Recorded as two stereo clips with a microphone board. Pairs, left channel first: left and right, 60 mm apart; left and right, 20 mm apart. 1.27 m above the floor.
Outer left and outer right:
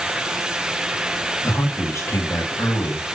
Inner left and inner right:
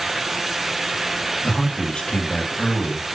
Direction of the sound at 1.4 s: 55° left (ahead or behind).